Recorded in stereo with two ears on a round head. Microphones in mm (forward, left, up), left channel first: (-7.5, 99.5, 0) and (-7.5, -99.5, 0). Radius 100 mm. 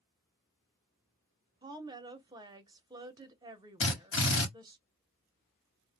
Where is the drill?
60° left (ahead or behind), 1.3 m.